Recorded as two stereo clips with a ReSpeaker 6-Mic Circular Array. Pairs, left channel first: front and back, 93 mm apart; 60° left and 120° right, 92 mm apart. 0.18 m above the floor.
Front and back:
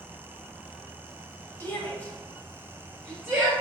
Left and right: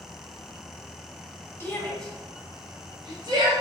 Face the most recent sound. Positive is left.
turn(degrees=-95)